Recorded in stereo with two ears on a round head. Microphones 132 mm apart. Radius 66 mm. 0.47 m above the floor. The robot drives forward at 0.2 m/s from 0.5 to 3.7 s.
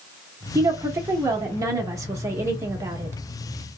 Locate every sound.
0.6 s a woman speaking: 20° right (ahead or behind), 0.9 m